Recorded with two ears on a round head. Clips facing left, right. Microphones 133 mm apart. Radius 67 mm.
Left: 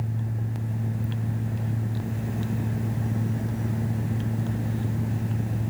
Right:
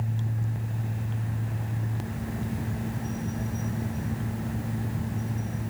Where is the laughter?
I don't hear laughter.